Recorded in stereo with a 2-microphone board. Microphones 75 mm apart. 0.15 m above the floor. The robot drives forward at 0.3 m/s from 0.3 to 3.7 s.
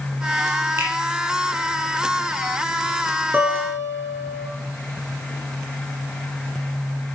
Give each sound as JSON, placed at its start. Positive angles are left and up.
{"t": 0.8, "sound": "a finger snap", "side_deg": -35, "distance_m": 4.0}
{"t": 3.3, "sound": "a guitar", "side_deg": -25, "distance_m": 2.0}